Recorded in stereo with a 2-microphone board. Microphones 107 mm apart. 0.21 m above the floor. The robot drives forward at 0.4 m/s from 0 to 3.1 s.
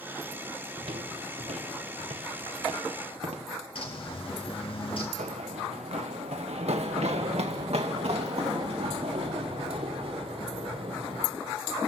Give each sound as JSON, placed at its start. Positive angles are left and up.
{"t": 0.8, "sound": "footsteps", "side_deg": -55, "distance_m": 0.5}
{"t": 3.8, "sound": "a bird", "side_deg": 55, "distance_m": 2.5}
{"t": 5.2, "sound": "running footsteps", "side_deg": -85, "distance_m": 0.9}